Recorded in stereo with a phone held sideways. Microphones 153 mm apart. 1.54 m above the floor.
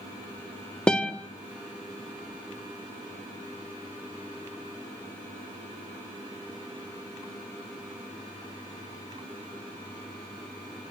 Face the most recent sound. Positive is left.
turn(degrees=5)  # may be behind; listen again after turning